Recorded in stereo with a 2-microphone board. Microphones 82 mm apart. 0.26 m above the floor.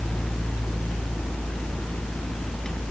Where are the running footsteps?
I don't hear running footsteps.